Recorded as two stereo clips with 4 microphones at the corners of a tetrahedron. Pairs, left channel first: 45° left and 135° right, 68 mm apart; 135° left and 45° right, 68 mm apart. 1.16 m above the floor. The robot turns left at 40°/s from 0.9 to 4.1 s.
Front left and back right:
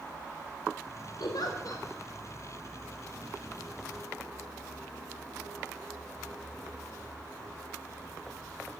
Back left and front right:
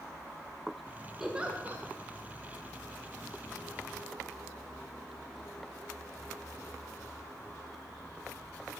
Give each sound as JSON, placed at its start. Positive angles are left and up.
{"t": 1.2, "sound": "a giggle", "azimuth_deg": 40, "distance_m": 1.6}